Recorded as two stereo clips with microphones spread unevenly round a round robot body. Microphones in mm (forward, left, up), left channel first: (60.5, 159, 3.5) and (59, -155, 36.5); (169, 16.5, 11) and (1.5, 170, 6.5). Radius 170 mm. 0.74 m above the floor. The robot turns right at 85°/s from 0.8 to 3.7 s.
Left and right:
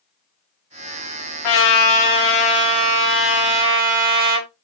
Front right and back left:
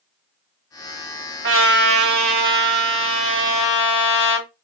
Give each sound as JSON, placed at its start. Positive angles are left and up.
{"t": 1.4, "sound": "a trumpet", "azimuth_deg": 100, "distance_m": 1.1}